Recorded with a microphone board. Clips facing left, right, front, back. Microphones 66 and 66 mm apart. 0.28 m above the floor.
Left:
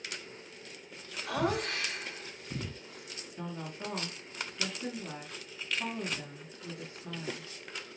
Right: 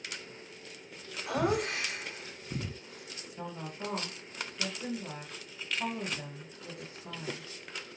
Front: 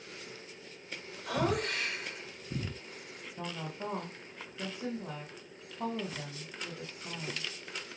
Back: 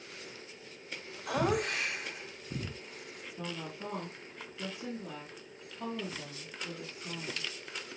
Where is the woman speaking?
20° right, 1.3 m.